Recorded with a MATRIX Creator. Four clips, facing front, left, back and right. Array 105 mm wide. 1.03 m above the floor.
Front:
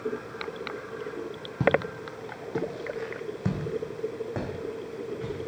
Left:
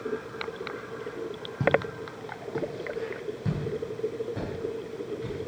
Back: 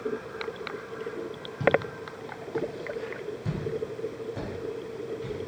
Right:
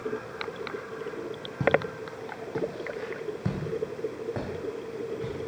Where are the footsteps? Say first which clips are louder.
Even, even; 5° right, 1.4 m; by 5.5 s 40° right, 3 m.